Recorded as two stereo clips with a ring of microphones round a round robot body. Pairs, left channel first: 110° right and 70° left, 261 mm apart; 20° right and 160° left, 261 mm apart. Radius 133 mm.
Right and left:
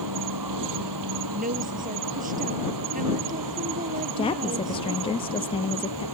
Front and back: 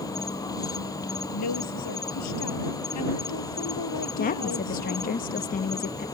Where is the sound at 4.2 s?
55° right.